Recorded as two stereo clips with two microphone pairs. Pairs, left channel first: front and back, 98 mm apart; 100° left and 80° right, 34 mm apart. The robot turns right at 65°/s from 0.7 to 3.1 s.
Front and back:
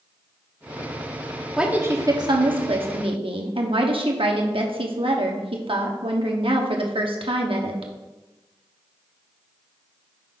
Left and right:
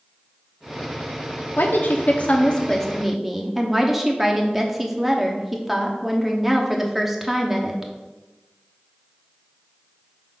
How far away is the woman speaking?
About 1.0 m.